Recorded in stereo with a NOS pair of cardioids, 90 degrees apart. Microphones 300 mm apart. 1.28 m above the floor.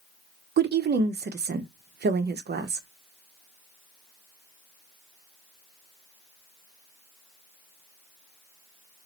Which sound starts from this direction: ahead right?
A woman speaking, at 0.6 s.